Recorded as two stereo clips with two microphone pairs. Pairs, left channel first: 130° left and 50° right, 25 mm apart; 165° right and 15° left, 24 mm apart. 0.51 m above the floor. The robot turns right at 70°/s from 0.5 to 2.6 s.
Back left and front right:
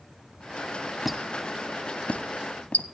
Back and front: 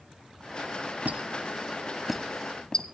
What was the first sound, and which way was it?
A squeak, 30° left.